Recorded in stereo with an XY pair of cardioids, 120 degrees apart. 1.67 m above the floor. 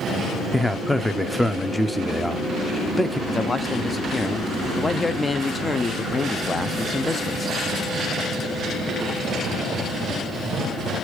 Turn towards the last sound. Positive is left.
turn(degrees=20)